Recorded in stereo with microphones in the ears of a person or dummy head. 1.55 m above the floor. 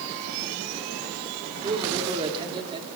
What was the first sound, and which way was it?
A man speaking, 25° right (ahead or behind).